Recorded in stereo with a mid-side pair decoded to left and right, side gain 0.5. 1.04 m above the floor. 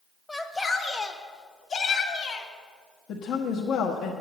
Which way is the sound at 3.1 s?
65° left.